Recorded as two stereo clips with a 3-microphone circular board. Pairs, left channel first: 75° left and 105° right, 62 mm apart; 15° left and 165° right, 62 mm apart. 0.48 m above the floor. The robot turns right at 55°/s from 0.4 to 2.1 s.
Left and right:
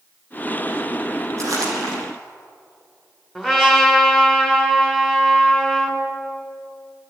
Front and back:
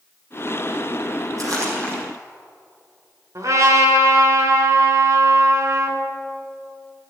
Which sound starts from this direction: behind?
A trumpet, at 3.4 s.